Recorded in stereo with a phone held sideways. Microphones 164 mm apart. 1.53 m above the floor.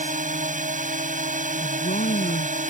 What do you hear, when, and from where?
0.0 s a drone: 50° right (ahead or behind)
1.6 s a woman speaking: 70° left (ahead or behind)